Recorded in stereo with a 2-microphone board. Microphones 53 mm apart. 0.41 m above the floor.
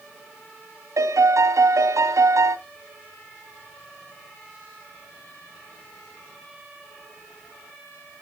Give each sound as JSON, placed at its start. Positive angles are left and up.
{"t": 1.0, "sound": "a piano", "side_deg": -80, "distance_m": 1.1}